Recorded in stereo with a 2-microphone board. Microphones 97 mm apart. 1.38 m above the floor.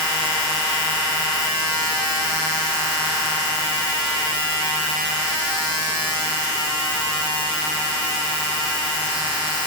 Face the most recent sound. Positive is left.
No sound to turn to.